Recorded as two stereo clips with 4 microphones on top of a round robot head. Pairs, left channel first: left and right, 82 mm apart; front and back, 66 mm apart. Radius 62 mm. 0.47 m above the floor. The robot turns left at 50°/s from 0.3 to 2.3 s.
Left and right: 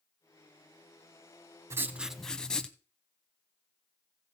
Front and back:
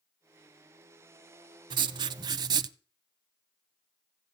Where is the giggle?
I don't hear a giggle.